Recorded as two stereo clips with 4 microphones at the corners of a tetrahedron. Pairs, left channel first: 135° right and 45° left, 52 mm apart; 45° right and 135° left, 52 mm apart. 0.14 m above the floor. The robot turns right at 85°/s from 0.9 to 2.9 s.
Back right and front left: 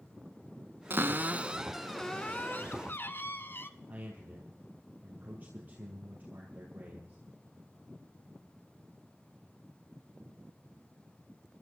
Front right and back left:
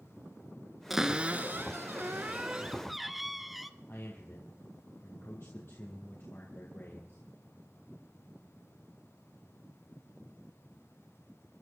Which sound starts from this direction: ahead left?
A cupboard door, at 0.9 s.